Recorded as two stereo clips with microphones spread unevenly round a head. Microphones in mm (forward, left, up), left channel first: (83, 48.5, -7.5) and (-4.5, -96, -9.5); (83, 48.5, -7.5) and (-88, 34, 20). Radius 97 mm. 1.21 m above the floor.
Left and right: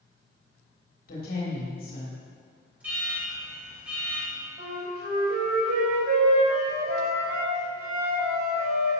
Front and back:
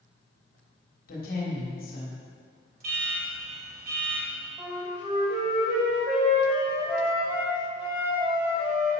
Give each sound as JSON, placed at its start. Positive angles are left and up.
{"t": 1.1, "sound": "a woman speaking", "azimuth_deg": 30, "distance_m": 3.0}
{"t": 2.8, "sound": "an alarm", "azimuth_deg": 155, "distance_m": 4.5}
{"t": 4.6, "sound": "a flute", "azimuth_deg": -95, "distance_m": 3.5}